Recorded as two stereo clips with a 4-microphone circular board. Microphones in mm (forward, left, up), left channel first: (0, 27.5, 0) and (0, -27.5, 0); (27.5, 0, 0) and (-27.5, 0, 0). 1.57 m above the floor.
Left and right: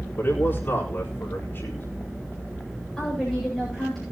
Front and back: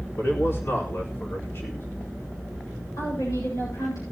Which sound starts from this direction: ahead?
A woman speaking, at 3.0 s.